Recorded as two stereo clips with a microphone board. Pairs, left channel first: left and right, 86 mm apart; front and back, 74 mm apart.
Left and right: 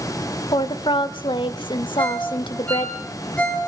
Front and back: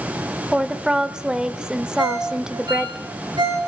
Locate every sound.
0.5 s a woman speaking: 100° left, 1.9 m
2.0 s a ringtone: 165° left, 5.5 m